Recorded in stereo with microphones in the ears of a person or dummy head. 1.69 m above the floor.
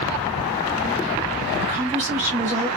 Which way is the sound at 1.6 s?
30° right (ahead or behind).